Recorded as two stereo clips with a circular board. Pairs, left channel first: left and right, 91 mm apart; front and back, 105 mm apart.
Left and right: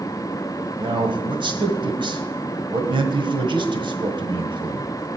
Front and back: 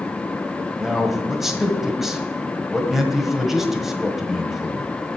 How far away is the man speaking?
About 1.5 m.